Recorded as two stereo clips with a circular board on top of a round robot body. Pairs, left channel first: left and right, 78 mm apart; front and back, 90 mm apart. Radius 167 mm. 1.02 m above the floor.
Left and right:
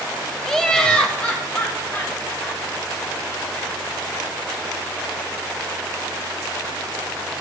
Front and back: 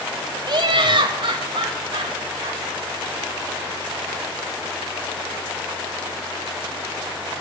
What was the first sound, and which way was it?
Laughter, 175° left.